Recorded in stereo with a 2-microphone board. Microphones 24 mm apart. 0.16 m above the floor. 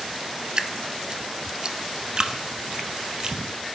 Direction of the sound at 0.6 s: 30° right (ahead or behind).